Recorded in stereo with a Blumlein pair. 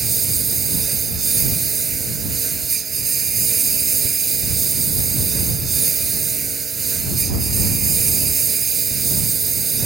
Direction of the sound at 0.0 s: 20° right.